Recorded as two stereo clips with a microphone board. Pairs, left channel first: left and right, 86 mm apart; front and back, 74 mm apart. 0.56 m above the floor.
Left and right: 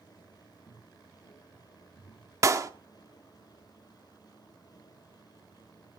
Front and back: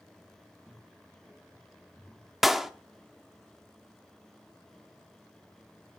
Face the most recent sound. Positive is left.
turn(degrees=-95)